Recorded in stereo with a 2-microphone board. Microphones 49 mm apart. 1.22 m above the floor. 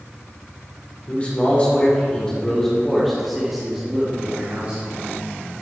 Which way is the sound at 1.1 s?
35° left (ahead or behind).